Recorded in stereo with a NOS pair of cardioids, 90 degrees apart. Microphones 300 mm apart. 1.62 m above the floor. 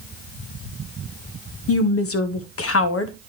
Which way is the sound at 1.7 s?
50° left.